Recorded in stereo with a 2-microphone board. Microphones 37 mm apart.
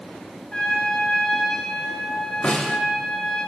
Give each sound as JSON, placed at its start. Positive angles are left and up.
{"t": 0.5, "sound": "a trumpet", "side_deg": 25, "distance_m": 5.5}
{"t": 2.4, "sound": "a snare drum", "side_deg": 35, "distance_m": 3.0}